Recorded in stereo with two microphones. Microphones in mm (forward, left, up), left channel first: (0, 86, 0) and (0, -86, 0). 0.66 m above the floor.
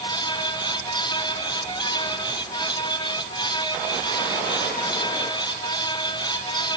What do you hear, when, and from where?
Only background noise.